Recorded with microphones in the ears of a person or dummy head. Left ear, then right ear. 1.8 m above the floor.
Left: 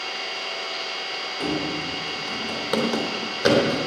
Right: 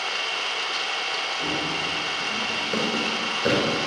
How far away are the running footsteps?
About 3 m.